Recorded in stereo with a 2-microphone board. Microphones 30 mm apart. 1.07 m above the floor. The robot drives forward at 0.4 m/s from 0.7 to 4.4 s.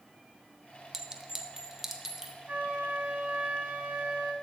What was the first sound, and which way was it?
A clink, 15° right (ahead or behind).